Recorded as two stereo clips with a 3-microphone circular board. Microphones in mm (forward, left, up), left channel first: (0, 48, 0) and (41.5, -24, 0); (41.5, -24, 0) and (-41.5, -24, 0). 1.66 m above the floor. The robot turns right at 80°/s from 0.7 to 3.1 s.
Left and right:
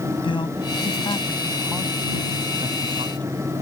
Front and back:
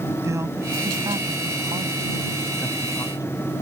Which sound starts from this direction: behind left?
A man speaking, at 0.2 s.